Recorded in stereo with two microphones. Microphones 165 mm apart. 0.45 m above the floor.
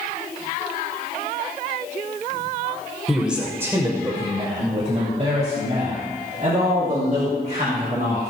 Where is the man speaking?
Centre (ahead or behind), 1.6 m; by 8.3 s 60° right (ahead or behind), 5 m.